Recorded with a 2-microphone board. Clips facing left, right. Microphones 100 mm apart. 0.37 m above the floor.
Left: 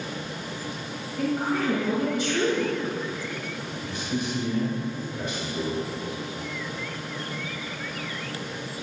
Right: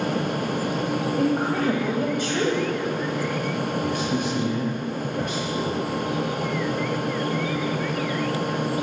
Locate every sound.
1.2 s a woman speaking: 55° right (ahead or behind), 1.7 m
3.8 s a man speaking: 60° right (ahead or behind), 2.5 m